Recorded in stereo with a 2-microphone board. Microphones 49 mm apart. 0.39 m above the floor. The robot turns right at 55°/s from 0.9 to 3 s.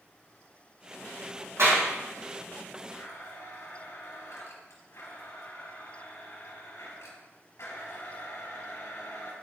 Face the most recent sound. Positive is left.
turn(degrees=65)  # may be behind; listen again after turning